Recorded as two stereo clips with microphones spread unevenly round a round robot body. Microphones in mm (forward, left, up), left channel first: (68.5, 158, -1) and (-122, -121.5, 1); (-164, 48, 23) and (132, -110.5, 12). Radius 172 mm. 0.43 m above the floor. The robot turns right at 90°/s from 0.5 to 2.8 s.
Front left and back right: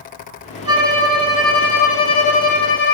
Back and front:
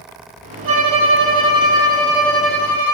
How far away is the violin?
About 3 m.